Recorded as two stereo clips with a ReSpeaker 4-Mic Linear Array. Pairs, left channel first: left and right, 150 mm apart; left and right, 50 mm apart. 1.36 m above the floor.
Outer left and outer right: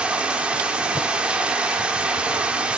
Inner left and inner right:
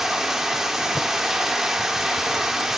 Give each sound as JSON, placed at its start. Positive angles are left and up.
{"t": 0.0, "sound": "running water", "side_deg": -10, "distance_m": 1.1}